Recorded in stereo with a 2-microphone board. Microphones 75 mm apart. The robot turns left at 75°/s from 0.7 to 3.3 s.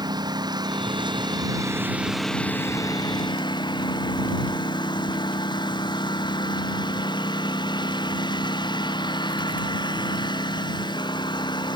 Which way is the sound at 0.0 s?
70° right.